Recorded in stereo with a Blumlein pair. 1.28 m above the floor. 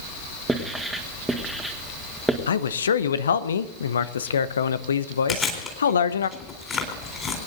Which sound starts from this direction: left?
A man speaking, at 2.5 s.